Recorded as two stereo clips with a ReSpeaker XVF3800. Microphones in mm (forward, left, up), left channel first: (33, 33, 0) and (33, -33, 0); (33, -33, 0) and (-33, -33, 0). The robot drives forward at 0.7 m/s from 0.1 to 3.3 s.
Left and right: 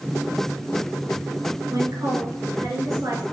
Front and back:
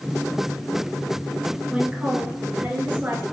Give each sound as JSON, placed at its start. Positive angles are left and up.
{"t": 1.7, "sound": "a woman speaking", "azimuth_deg": -105, "distance_m": 3.0}